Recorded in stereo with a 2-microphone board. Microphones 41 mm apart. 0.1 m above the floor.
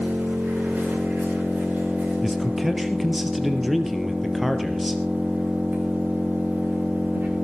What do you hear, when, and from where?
0.0 s an engine running: 55° right (ahead or behind), 9 m
2.2 s a man speaking: 5° right (ahead or behind), 2.5 m